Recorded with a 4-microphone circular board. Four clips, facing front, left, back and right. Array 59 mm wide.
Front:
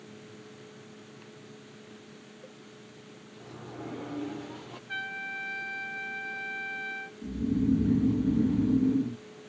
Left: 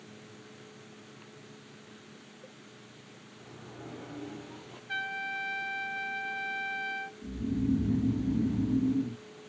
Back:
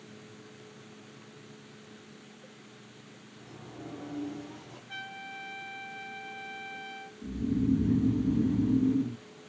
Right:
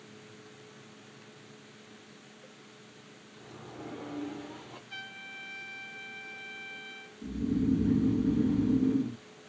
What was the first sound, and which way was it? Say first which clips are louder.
A sliding door: right 2 dB, front 4 dB; 20° right.